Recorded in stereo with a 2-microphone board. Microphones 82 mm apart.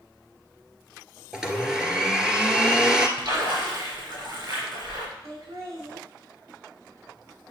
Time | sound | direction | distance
1.3 | a blender | 5° right (ahead or behind) | 1.5 m
3.2 | a splash | 65° right (ahead or behind) | 4.5 m
5.2 | laughter | 60° right (ahead or behind) | 5.5 m